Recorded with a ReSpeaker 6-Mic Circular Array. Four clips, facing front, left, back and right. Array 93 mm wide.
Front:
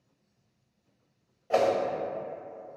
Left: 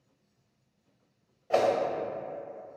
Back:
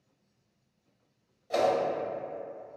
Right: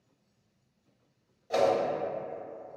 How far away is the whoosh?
About 0.5 m.